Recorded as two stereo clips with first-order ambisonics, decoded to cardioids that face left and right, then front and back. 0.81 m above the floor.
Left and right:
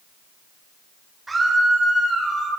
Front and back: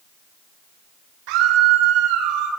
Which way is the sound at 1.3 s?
170° right.